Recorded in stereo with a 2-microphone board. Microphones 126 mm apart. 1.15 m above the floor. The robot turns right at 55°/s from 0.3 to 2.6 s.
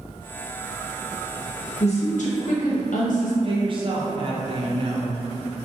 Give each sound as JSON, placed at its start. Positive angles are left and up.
{"t": 1.8, "sound": "a woman speaking", "azimuth_deg": 55, "distance_m": 0.6}
{"t": 3.4, "sound": "a woman speaking", "side_deg": -45, "distance_m": 0.5}